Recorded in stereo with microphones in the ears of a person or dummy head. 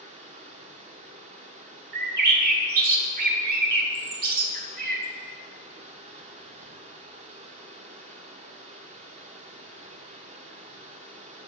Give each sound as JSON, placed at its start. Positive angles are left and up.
{"t": 0.0, "sound": "running water", "side_deg": -40, "distance_m": 0.9}
{"t": 1.9, "sound": "a bird", "side_deg": -55, "distance_m": 1.0}